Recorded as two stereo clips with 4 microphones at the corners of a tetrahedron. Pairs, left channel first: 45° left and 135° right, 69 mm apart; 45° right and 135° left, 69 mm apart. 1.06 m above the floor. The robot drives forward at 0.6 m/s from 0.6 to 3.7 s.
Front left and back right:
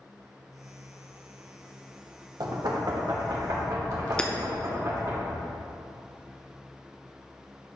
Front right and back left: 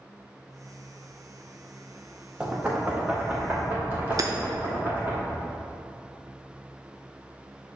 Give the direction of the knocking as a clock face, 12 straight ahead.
5 o'clock.